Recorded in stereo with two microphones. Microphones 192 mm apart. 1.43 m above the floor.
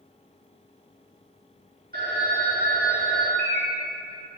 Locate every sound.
1.9 s a phone ringing: 50° right (ahead or behind), 1.7 m
3.4 s a bird: 60° left (ahead or behind), 1.0 m